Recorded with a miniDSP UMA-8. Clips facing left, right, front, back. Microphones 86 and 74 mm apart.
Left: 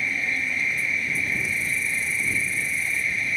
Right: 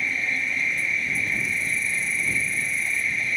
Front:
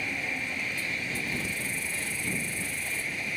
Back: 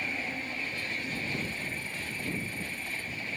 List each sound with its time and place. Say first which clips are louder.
0.0 s an insect: even, front 2 dB; 5° left